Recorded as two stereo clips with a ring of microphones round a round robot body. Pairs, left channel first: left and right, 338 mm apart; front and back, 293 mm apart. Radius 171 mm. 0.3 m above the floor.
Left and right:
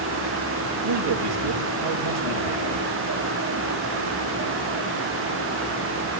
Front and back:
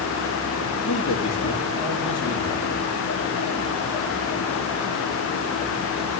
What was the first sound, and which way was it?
A man speaking, 75° right.